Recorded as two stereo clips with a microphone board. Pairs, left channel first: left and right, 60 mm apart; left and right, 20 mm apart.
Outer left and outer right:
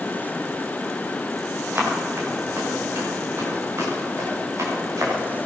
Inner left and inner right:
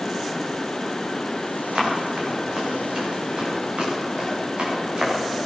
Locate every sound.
1.8 s running footsteps: 40° right (ahead or behind), 7 m; by 5.2 s 60° right (ahead or behind), 7.5 m